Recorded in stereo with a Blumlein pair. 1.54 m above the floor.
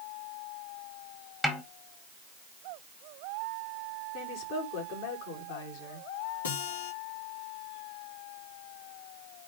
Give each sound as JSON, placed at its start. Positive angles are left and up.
{"t": 1.4, "sound": "a snare drum", "azimuth_deg": 5, "distance_m": 2.0}
{"t": 4.1, "sound": "a woman speaking", "azimuth_deg": 45, "distance_m": 4.5}
{"t": 6.4, "sound": "a guitar", "azimuth_deg": 70, "distance_m": 4.5}